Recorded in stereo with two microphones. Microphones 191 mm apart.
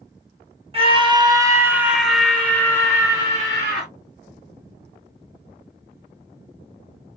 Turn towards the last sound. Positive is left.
turn(degrees=25)  # may be behind; listen again after turning